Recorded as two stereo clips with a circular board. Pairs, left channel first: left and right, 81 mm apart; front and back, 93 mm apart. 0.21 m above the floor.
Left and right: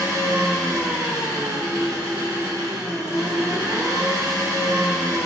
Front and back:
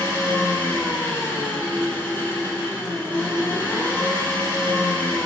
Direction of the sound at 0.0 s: 65° right.